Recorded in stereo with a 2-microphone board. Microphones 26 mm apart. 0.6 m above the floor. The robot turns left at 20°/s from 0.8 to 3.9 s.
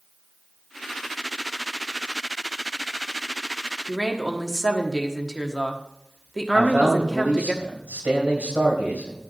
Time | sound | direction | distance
3.9 | a woman speaking | 5° left (ahead or behind) | 1.3 m
6.5 | a man speaking | 70° right (ahead or behind) | 4 m